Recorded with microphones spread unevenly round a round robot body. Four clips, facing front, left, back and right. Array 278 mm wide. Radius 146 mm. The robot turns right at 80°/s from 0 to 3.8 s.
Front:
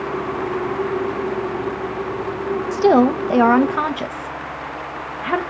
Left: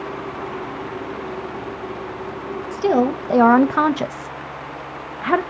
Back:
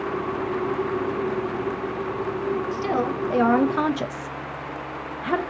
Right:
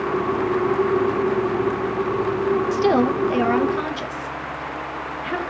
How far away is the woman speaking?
About 0.6 m.